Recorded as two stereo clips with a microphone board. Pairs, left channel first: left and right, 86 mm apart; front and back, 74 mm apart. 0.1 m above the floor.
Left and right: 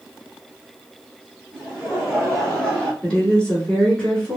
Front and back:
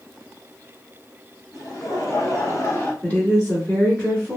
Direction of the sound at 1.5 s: Straight ahead.